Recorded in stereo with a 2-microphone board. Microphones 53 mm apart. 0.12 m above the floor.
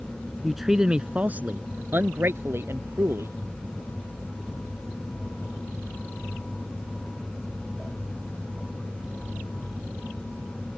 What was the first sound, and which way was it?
A man speaking, centre (ahead or behind).